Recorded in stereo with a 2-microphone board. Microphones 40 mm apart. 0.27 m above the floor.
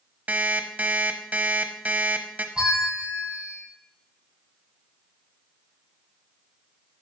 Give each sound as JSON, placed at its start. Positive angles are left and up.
{"t": 0.3, "sound": "an alarm clock", "side_deg": -45, "distance_m": 0.8}
{"t": 2.5, "sound": "a bell", "side_deg": -25, "distance_m": 3.0}